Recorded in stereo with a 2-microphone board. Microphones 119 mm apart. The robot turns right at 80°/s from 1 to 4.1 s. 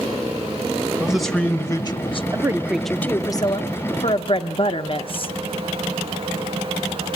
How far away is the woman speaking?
About 0.6 m.